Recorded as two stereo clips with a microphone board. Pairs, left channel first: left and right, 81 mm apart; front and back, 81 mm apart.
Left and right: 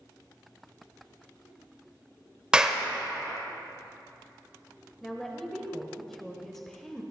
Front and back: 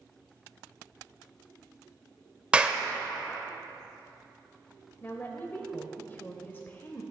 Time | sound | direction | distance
2.5 | a clap | 140° right | 0.6 m
5.0 | a woman speaking | 10° left | 0.9 m